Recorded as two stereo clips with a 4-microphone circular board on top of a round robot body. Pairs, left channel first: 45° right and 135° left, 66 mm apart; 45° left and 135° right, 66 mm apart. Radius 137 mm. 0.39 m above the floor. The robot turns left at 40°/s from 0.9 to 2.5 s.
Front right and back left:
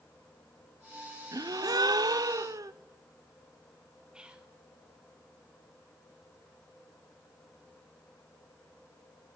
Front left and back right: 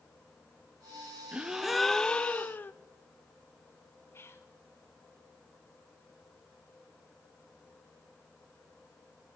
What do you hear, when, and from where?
1.3 s a gasp: 155° left, 0.6 m; by 2.7 s 105° left, 0.6 m
4.1 s whispering: 65° left, 1.8 m